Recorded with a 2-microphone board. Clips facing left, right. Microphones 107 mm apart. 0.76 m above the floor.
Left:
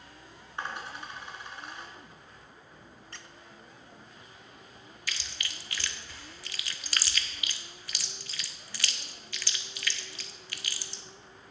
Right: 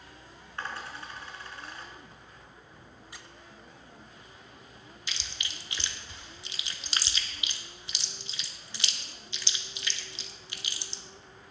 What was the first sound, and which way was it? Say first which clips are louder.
A dropped coin: left 1 dB; 20° left (ahead or behind).